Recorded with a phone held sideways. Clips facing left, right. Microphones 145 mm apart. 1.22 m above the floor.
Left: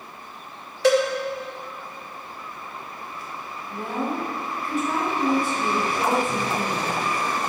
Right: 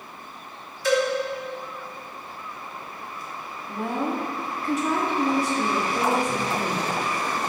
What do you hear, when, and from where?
0.8 s a cowbell: 75° left (ahead or behind), 1.3 m
3.7 s a woman speaking: 80° right, 2.5 m